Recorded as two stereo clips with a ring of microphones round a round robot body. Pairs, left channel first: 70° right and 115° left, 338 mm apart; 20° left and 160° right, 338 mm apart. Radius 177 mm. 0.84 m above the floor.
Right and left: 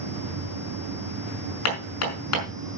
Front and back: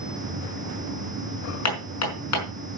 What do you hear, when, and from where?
1.6 s hammering: 20° right, 5.5 m